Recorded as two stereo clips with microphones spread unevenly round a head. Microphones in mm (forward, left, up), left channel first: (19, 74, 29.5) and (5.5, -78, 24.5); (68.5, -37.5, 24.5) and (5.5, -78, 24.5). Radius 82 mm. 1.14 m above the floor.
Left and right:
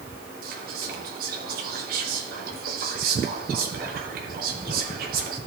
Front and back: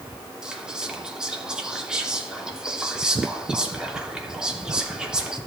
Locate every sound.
0.4 s whispering: 65° right, 2.5 m